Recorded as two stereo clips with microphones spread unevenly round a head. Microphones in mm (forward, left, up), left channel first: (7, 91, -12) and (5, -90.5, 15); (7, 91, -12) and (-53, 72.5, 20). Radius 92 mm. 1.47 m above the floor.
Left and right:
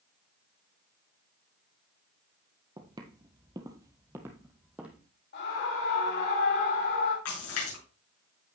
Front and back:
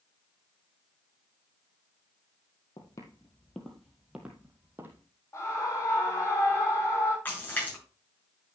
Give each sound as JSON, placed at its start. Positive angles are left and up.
{"t": 2.8, "sound": "footsteps", "azimuth_deg": -45, "distance_m": 1.9}
{"t": 5.3, "sound": "a scream", "azimuth_deg": 60, "distance_m": 4.5}
{"t": 7.2, "sound": "a splash", "azimuth_deg": 85, "distance_m": 7.0}